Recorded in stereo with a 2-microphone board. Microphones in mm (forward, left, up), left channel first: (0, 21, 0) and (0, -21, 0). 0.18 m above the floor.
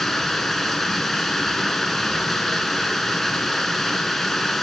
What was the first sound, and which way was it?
Running water, 5° left (ahead or behind).